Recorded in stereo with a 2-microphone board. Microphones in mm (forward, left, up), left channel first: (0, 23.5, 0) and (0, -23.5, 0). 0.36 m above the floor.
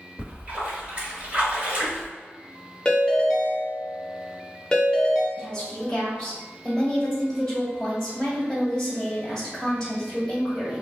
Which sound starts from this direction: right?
A splash, at 0.2 s.